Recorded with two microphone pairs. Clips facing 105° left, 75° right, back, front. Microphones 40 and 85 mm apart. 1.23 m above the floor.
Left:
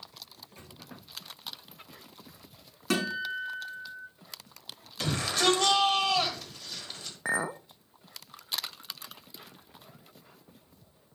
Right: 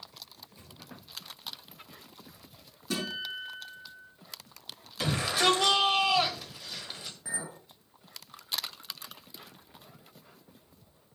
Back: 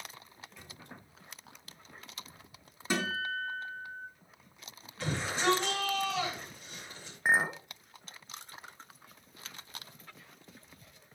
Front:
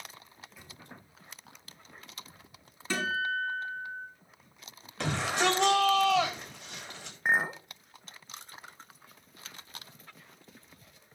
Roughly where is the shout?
Ahead.